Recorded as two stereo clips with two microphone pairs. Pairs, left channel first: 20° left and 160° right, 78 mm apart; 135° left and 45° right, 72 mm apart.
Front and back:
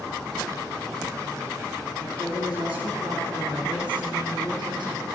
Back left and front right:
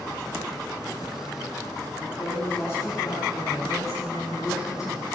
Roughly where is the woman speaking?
Behind.